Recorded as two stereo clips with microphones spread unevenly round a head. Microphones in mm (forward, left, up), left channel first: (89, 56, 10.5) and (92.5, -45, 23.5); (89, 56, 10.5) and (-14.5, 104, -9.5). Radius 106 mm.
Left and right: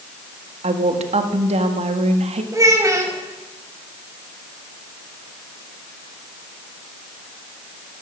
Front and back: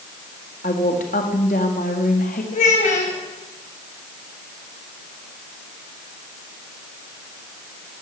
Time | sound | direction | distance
0.6 | a woman speaking | 75° right | 1.6 m
2.5 | a child speaking | 30° right | 3.5 m